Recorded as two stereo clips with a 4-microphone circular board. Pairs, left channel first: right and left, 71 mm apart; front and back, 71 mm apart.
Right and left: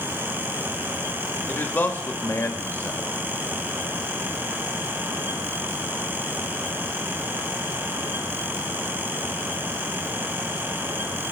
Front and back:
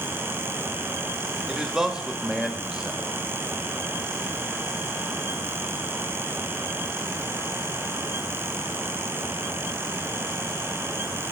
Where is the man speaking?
105° right, 1.0 m.